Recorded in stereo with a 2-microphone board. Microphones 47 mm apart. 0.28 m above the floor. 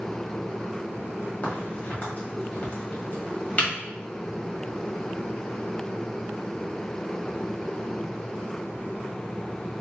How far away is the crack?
About 1.5 m.